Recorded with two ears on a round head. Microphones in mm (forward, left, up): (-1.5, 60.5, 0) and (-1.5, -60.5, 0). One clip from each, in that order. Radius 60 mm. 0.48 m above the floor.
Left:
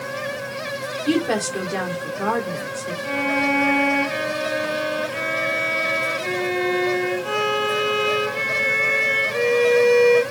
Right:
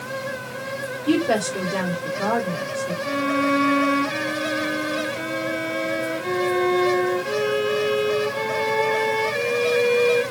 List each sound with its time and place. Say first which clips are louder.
1.1 s a woman speaking: right 1 dB; 35° left (ahead or behind), 1.3 m
3.0 s a violin: left 2 dB; 70° left (ahead or behind), 2 m